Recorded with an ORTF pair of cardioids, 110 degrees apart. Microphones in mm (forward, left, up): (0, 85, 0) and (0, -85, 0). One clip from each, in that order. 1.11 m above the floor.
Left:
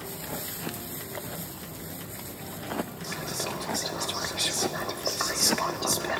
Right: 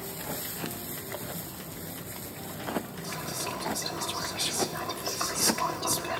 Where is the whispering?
30° left, 1.0 m.